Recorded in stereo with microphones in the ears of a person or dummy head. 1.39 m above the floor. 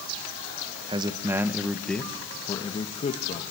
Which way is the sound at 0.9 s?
25° right (ahead or behind).